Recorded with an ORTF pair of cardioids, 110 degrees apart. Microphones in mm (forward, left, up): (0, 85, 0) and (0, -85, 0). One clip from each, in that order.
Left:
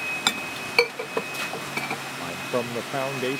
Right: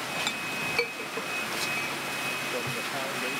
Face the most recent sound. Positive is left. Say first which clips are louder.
# left 5 dB
turn(degrees=55)